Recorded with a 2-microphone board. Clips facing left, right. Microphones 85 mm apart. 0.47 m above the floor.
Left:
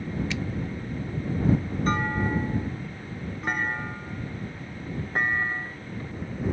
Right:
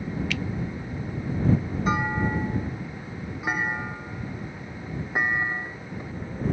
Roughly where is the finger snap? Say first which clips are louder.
Even; left.